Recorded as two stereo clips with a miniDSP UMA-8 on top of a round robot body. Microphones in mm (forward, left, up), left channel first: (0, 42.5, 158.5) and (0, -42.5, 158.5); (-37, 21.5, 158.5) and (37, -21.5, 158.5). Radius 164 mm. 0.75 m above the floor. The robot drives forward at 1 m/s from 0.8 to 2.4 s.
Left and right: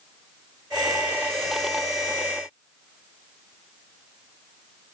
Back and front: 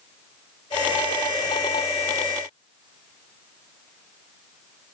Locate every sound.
Only background noise.